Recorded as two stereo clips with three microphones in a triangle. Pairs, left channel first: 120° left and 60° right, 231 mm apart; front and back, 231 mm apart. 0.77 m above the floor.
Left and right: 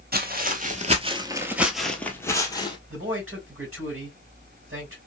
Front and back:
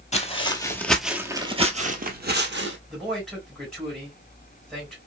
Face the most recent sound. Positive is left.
turn(degrees=-90)